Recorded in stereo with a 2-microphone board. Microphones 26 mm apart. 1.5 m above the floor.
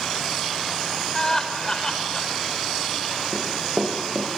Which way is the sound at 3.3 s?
50° right (ahead or behind).